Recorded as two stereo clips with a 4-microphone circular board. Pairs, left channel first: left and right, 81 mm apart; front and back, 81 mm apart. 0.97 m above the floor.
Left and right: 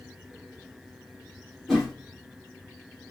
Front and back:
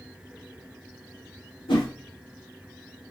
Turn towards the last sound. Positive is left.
turn(degrees=0)